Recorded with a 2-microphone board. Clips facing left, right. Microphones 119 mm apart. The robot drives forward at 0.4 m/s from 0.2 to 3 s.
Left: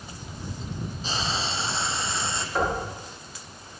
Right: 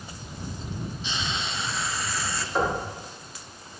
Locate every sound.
1.0 s frying: 40° left (ahead or behind), 0.9 m; by 2.5 s 25° left (ahead or behind), 1.4 m
2.5 s knocking: 10° right (ahead or behind), 8.5 m